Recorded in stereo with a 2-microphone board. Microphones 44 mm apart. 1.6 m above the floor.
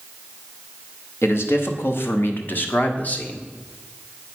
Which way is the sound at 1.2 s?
80° left.